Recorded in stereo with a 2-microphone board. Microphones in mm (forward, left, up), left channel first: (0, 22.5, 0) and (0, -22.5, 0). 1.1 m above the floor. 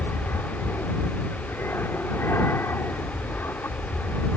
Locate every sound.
0.0 s an aircraft: 65° left (ahead or behind)